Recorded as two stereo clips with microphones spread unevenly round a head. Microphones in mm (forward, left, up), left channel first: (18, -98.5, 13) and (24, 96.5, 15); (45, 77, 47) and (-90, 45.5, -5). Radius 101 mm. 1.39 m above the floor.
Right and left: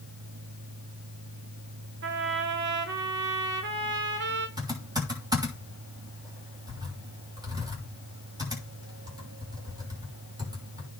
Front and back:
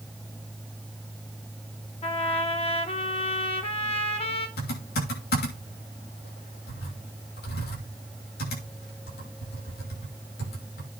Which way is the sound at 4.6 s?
15° left.